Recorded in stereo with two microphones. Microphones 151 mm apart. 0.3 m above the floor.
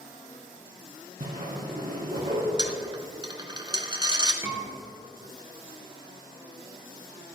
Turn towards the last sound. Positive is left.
turn(degrees=-20)  # may be behind; listen again after turning